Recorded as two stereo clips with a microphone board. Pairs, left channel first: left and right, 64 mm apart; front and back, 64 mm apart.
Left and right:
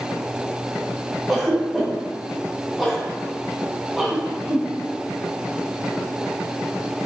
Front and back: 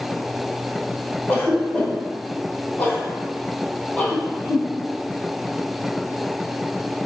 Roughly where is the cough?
Ahead.